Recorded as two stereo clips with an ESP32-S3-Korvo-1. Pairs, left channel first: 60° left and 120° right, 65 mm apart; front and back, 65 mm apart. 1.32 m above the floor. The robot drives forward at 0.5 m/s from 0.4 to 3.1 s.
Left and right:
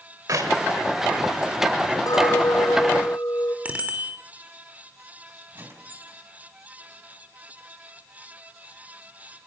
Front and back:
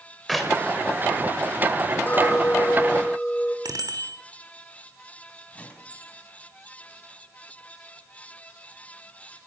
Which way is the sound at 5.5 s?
70° right.